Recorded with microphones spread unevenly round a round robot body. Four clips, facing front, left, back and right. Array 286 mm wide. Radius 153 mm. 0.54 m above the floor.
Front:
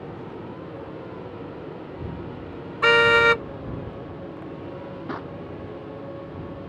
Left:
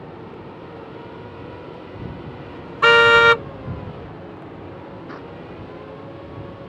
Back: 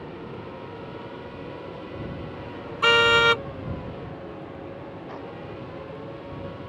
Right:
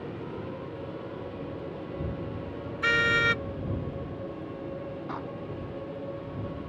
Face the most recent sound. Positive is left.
turn(degrees=0)